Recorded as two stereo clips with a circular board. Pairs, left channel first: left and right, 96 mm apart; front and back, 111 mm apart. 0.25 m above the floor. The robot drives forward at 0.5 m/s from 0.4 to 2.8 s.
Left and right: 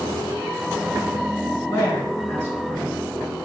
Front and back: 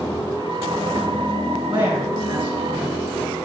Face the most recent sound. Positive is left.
turn(degrees=155)